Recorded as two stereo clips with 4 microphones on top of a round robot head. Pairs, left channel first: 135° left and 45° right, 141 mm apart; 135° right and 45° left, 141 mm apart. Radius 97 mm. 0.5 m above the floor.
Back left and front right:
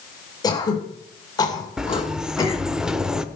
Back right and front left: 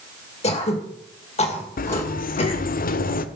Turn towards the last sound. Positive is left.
turn(degrees=-130)